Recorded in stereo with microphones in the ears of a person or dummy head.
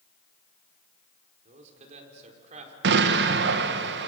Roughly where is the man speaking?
Right.